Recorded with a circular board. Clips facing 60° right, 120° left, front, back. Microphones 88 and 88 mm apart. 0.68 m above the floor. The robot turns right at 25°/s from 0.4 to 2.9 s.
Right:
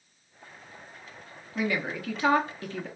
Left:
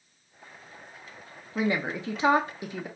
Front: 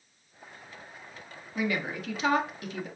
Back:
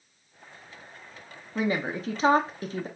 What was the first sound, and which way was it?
A woman speaking, 155° left.